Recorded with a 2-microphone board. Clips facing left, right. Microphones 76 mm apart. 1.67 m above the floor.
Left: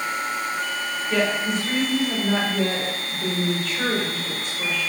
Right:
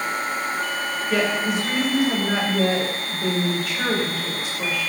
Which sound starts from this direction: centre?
A woman speaking, at 1.1 s.